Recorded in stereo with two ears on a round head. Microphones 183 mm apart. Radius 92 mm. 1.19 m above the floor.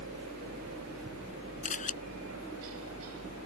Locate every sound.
0.0 s a helicopter: 75° right (ahead or behind); by 3.5 s 80° right
1.6 s a camera shutter: 40° left (ahead or behind)